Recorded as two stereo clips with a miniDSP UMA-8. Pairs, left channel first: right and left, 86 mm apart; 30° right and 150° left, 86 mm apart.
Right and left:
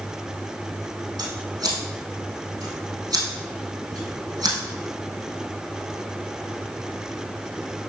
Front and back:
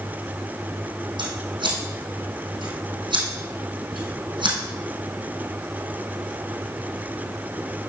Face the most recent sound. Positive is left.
turn(degrees=140)